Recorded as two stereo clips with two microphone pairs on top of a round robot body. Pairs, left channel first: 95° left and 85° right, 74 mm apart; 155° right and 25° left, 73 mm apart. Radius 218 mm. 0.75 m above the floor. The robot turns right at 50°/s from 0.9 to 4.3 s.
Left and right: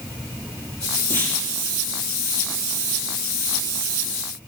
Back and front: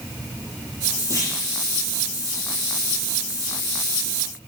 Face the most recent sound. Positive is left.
turn(degrees=-45)